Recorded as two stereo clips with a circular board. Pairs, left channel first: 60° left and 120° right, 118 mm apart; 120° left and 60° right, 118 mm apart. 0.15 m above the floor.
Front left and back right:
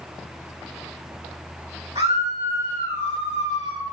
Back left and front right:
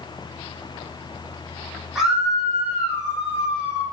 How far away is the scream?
About 6.5 m.